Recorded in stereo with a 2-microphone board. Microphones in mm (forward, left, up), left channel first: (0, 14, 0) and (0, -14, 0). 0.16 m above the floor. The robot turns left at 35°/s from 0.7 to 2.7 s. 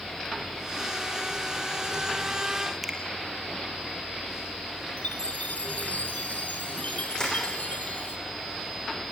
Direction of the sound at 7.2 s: 25° left (ahead or behind).